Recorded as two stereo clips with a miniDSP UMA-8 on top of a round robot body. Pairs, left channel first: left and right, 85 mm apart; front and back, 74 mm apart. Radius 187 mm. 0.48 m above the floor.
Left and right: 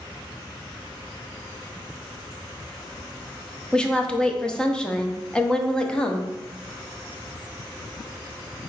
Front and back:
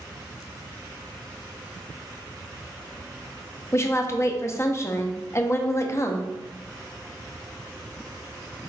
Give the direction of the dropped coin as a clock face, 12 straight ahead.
No dropped coin in this recording.